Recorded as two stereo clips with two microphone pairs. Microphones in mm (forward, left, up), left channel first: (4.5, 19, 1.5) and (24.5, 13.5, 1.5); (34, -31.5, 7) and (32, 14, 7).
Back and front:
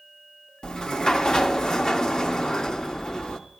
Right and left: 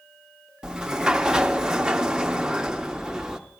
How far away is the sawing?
No sawing in this recording.